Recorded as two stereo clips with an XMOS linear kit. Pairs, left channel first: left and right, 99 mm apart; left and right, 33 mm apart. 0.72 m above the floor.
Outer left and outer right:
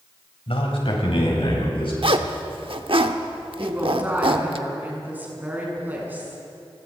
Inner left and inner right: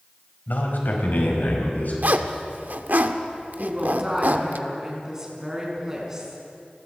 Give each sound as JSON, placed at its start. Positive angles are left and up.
{"t": 0.5, "sound": "a man speaking", "side_deg": 70, "distance_m": 4.5}
{"t": 2.0, "sound": "a zipper", "side_deg": -65, "distance_m": 1.0}
{"t": 3.6, "sound": "a woman speaking", "side_deg": -20, "distance_m": 6.0}